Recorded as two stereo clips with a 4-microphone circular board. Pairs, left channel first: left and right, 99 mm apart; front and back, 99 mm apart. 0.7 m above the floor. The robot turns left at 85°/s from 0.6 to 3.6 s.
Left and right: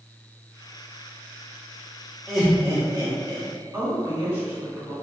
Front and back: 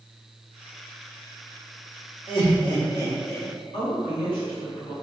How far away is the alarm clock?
No alarm clock in this recording.